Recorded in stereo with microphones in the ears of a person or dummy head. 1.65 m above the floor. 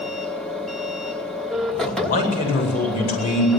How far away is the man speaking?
About 8.5 m.